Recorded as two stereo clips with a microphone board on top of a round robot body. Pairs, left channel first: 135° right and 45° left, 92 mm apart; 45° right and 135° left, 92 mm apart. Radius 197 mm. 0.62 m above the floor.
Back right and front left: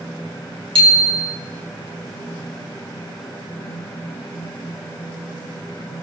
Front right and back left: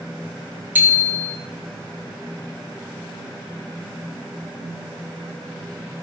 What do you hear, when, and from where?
0.8 s a bicycle bell: 65° left, 4.5 m